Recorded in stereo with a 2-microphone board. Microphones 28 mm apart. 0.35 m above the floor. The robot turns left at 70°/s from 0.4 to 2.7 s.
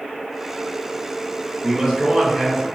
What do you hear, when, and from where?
1.6 s a man speaking: 10° right (ahead or behind), 0.9 m; by 2.7 s 25° right (ahead or behind), 0.9 m